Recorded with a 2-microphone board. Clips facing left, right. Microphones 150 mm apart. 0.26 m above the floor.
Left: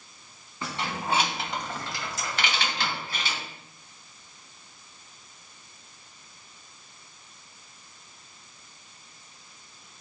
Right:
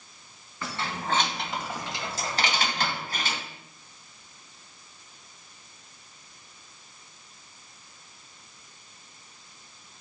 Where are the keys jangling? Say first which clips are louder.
Left 1 dB; 20° left (ahead or behind), 1.7 m; by 3.4 s 45° right (ahead or behind), 1.9 m.